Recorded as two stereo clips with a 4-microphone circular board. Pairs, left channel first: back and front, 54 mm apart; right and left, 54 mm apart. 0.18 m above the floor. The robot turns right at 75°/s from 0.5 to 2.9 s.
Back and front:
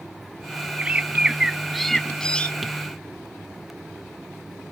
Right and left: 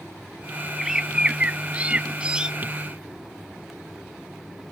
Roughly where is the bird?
Ahead.